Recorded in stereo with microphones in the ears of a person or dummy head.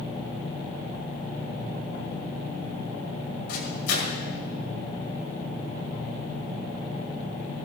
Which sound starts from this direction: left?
A microwave, at 3.5 s.